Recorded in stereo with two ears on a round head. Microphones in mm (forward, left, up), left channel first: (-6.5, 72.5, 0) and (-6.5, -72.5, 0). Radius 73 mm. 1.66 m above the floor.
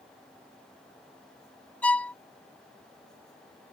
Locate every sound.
1.8 s a violin: 10° left (ahead or behind)